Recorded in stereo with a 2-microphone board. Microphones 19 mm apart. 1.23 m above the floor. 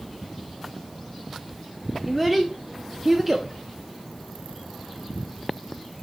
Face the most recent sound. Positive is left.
turn(degrees=-15)  # may be behind; listen again after turning